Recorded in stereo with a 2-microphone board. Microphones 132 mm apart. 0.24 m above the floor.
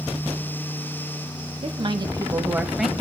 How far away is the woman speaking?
About 1.4 m.